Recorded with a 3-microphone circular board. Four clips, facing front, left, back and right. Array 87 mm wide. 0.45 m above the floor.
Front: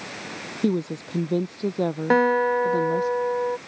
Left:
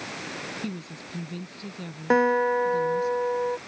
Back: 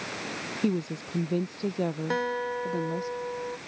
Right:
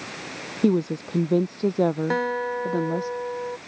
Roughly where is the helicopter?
I don't hear a helicopter.